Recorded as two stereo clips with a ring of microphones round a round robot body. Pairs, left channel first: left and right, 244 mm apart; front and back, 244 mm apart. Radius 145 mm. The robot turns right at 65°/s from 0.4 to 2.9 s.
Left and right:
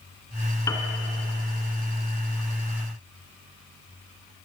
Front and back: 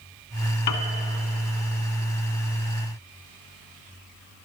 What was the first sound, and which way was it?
A piano, 10° left.